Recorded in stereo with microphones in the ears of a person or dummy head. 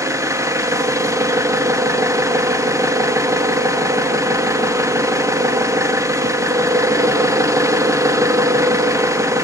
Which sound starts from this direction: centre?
An engine running, at 0.0 s.